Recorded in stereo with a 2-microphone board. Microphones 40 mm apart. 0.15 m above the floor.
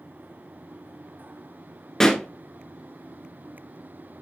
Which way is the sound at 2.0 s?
15° left (ahead or behind).